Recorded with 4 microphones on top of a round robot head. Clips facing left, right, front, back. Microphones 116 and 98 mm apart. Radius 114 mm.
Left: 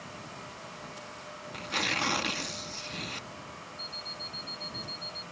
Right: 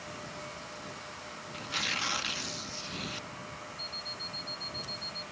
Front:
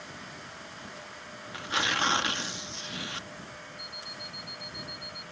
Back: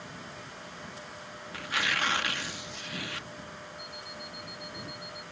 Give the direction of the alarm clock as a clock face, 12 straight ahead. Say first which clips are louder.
Even, back 1 dB; 8 o'clock.